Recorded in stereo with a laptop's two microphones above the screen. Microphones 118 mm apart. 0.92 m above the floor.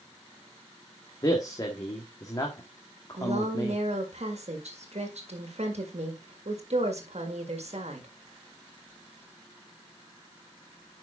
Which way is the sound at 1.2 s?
30° left (ahead or behind).